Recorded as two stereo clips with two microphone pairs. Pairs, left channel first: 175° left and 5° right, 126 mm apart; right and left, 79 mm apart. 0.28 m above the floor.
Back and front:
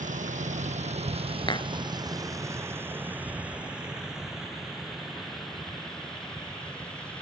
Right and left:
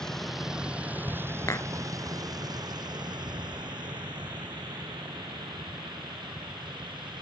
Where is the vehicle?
5° right; by 7.2 s 90° left.